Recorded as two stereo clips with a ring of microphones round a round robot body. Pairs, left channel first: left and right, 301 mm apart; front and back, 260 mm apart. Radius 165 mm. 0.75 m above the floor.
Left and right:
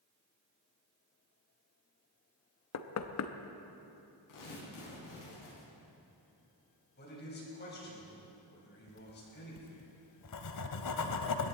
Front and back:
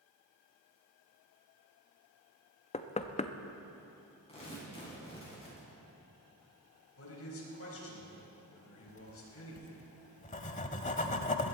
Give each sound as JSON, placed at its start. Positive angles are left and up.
{"t": 2.7, "sound": "knocking", "azimuth_deg": 65, "distance_m": 0.9}
{"t": 4.3, "sound": "tearing paper", "azimuth_deg": 65, "distance_m": 7.0}
{"t": 7.0, "sound": "a man speaking", "azimuth_deg": 35, "distance_m": 4.5}
{"t": 8.9, "sound": "writing", "azimuth_deg": 60, "distance_m": 1.0}